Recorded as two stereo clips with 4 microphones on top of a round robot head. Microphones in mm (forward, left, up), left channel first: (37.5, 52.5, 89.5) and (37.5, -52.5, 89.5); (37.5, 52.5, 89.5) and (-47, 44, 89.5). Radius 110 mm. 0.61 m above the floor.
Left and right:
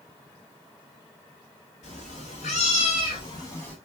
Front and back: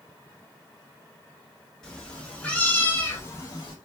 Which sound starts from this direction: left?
A cat meowing, at 1.8 s.